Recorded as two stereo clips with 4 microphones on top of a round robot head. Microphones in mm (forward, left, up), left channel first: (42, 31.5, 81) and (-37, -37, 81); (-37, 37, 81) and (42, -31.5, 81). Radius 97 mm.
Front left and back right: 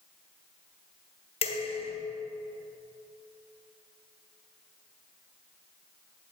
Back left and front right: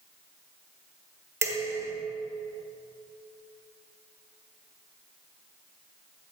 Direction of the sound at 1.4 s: 25° left.